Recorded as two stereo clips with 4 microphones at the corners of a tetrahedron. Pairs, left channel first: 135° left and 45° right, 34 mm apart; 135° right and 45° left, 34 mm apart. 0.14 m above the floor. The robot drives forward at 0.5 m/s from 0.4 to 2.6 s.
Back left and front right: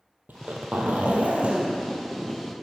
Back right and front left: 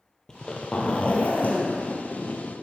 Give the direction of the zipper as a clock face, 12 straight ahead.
2 o'clock.